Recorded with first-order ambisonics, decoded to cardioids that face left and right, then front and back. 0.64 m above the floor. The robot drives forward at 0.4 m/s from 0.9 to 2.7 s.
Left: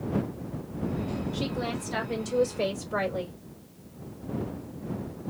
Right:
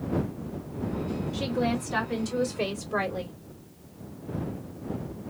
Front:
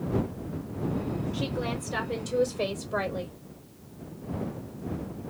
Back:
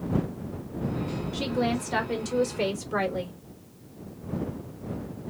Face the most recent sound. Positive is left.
turn(degrees=180)